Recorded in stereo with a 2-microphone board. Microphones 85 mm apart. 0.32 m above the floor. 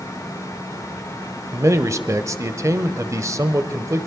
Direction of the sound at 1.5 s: 35° right (ahead or behind).